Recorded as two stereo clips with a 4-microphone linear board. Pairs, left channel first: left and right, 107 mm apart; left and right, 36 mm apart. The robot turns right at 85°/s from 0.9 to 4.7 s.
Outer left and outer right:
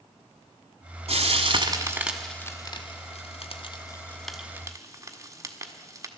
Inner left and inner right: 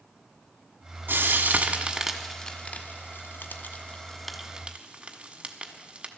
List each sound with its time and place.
1.1 s frying: 80° right, 1.3 m; by 6.1 s 35° right (ahead or behind), 1.3 m